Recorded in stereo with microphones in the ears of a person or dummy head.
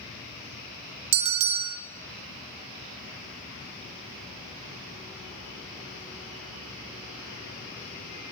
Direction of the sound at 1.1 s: 30° right (ahead or behind).